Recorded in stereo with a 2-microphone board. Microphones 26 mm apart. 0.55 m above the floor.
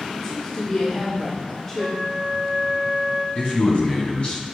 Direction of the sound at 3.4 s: 50° left (ahead or behind).